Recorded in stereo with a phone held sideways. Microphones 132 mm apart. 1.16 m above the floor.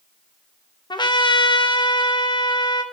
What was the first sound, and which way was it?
A trumpet, 35° left (ahead or behind).